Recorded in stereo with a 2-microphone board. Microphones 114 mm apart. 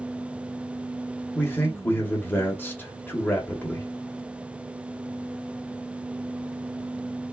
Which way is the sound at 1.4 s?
20° left (ahead or behind).